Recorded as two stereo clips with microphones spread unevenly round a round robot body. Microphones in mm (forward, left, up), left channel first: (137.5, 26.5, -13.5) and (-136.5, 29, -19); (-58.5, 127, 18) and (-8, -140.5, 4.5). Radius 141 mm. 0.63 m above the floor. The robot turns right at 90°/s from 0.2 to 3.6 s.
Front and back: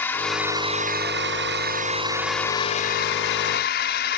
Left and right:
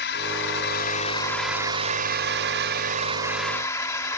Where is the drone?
80° left; by 4.2 s 25° left.